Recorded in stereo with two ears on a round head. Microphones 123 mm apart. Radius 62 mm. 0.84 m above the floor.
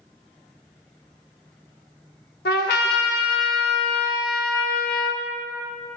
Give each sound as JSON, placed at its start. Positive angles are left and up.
{"t": 2.5, "sound": "a trumpet", "side_deg": 80, "distance_m": 0.8}